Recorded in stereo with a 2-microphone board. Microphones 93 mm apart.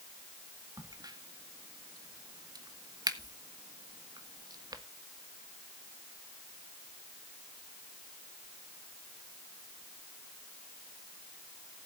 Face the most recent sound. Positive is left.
turn(degrees=-45)  # may be behind; listen again after turning